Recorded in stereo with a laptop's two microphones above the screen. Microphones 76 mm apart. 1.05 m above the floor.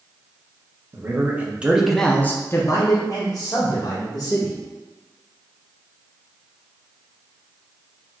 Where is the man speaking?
35° right (ahead or behind), 0.9 m; by 4.6 s 60° left (ahead or behind), 1.7 m.